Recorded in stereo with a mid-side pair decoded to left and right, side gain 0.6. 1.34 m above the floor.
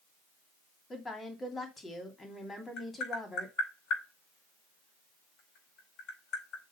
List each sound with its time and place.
0.9 s a woman speaking: 25° left, 3 m
2.8 s tapping: 60° left, 5 m